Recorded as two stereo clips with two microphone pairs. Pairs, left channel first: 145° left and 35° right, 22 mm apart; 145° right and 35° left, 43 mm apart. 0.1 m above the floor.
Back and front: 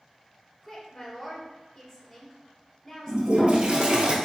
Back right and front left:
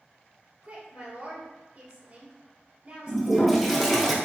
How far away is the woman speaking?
About 1.9 m.